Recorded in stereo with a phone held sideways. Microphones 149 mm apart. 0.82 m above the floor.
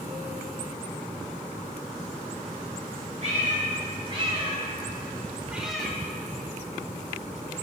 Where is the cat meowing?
45° right (ahead or behind), 1.9 m; by 6.0 s 10° left (ahead or behind), 0.7 m.